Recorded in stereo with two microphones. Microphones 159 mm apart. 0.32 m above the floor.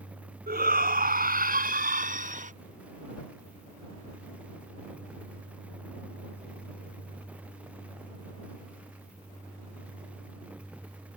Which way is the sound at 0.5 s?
70° right (ahead or behind).